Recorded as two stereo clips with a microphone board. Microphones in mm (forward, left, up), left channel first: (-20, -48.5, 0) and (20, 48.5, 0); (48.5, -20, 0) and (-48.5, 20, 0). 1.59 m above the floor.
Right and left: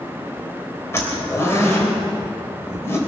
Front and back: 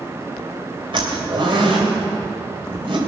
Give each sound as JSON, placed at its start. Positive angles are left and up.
{"t": 0.9, "sound": "a zipper", "azimuth_deg": -175, "distance_m": 3.0}